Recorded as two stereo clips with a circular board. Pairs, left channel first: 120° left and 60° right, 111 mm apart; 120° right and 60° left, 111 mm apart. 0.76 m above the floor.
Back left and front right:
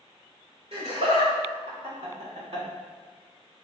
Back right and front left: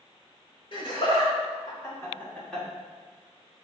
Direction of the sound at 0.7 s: 85° right.